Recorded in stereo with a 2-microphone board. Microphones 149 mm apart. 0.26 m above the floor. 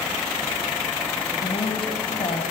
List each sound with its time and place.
1.4 s a woman speaking: 40° left (ahead or behind), 1.4 m